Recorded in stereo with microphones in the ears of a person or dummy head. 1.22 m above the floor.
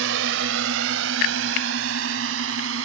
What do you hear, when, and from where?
0.0 s a drone: 80° right; by 2.9 s 85° right